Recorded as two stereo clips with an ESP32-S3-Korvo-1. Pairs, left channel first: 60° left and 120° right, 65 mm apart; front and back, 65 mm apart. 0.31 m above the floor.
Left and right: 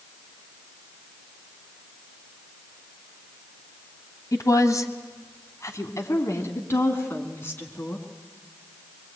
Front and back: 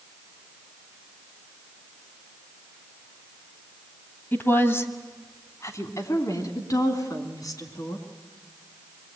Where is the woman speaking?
50° left, 2.5 m; by 8.1 s straight ahead, 4 m.